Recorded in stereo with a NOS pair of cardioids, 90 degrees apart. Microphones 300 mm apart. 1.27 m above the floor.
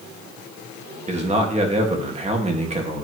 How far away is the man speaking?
About 2.0 m.